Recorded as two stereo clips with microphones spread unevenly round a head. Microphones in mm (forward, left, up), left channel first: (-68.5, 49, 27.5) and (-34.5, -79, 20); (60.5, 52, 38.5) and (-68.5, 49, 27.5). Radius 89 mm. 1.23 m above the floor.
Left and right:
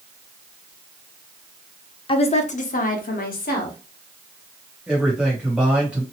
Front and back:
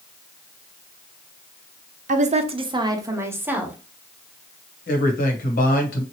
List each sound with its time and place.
2.1 s a woman speaking: 155° left, 0.6 m; by 3.8 s 100° left, 1.2 m
4.9 s a man speaking: 10° left, 1.1 m